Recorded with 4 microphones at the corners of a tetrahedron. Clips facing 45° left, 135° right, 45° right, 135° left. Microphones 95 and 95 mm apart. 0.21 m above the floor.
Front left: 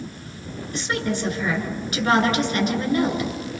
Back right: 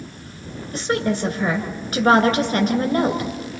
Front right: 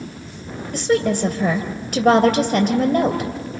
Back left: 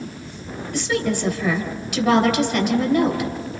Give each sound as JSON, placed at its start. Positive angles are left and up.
{"t": 0.7, "sound": "a woman speaking", "azimuth_deg": -85, "distance_m": 2.5}